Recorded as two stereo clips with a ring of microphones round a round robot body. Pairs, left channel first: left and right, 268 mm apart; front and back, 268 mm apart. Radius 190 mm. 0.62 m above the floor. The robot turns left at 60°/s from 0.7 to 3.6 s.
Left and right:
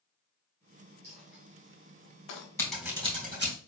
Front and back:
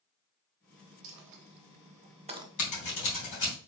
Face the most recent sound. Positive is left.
turn(degrees=-50)